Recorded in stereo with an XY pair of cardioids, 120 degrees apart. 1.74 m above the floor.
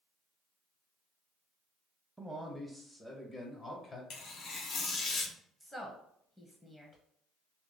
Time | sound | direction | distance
2.2 | a man speaking | 10° right | 0.7 m
4.1 | tearing paper | 55° left | 0.9 m
5.6 | a woman speaking | 15° left | 0.9 m